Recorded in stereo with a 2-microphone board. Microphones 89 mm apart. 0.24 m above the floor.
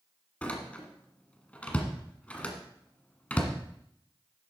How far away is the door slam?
About 1.5 m.